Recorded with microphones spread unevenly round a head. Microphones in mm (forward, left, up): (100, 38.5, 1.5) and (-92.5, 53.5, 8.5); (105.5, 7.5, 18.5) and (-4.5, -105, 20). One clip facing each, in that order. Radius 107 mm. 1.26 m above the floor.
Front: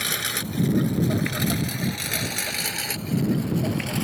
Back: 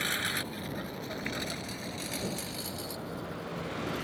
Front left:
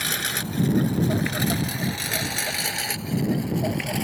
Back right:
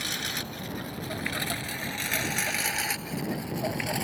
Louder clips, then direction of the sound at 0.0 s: Front 4 dB, front left 5 dB; 25° left.